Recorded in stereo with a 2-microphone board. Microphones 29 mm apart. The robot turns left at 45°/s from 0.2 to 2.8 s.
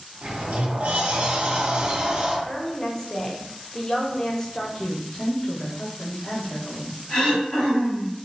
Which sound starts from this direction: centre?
A woman speaking, at 2.5 s.